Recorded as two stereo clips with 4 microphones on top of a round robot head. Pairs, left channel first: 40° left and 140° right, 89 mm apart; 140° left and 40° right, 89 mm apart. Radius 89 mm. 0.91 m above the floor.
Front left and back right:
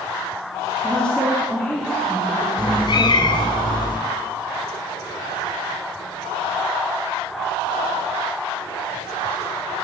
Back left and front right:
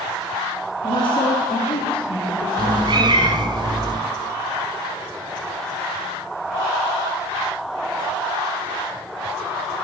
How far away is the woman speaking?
About 2 m.